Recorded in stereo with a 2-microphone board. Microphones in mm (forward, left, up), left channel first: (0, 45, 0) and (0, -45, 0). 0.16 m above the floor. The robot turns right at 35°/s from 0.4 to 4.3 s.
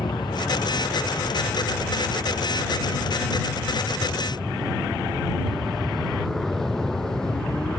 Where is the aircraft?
60° left (ahead or behind); by 7.8 s 10° left (ahead or behind).